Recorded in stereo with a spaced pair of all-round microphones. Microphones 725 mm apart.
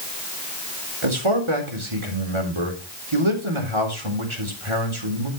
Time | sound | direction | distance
1.0 | a man speaking | 40° right (ahead or behind) | 4 m